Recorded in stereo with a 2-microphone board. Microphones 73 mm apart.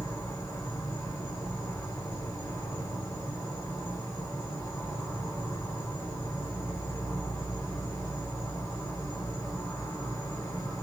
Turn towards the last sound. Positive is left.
turn(degrees=45)  # may be behind; listen again after turning